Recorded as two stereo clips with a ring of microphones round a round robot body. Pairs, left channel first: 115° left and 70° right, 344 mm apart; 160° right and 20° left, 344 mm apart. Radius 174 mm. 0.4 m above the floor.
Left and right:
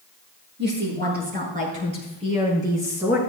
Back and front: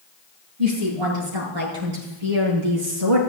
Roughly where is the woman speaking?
Ahead.